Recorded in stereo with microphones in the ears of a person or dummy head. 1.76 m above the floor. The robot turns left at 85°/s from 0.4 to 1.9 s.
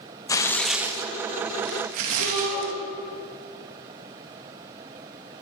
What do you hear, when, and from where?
0.3 s tearing paper: 20° left, 1.4 m; by 2.7 s 110° right, 1.4 m
2.2 s a shout: 65° left (ahead or behind), 8 m